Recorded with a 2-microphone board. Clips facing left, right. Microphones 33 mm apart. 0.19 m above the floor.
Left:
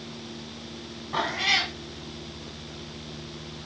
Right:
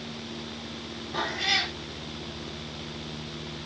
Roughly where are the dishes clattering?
No dishes clattering in this recording.